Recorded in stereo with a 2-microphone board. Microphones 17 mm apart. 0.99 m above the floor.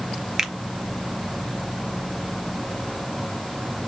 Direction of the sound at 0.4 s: 30° right (ahead or behind).